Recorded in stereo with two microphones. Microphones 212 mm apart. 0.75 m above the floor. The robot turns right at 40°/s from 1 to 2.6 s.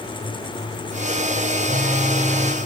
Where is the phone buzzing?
55° right, 2 m; by 2.6 s 15° right, 2 m.